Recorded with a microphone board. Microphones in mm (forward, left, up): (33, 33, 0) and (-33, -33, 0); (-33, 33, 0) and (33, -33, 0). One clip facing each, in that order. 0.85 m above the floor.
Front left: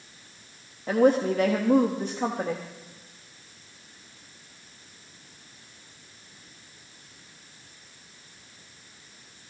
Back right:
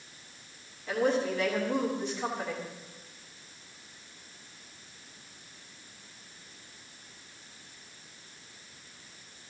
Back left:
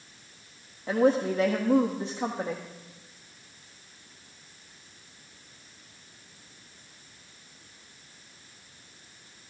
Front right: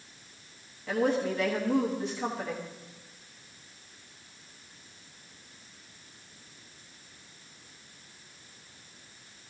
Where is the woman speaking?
80° left, 1.2 m.